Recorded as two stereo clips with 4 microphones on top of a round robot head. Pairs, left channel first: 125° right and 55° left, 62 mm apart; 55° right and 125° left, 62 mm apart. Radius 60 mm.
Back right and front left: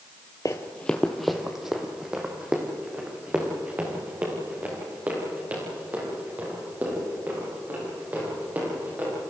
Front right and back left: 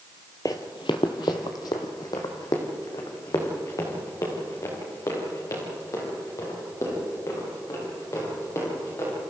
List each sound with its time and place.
0.5 s running footsteps: 85° right, 1.1 m; by 9.1 s 10° right, 12 m